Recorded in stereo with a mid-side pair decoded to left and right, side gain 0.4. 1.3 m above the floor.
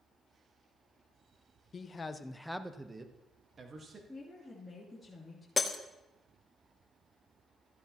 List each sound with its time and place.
1.7 s a man speaking: 45° left, 1.1 m; by 4.0 s 50° right, 2 m
4.1 s a woman speaking: 5° left, 3.5 m
5.6 s breaking glass: 30° left, 1.3 m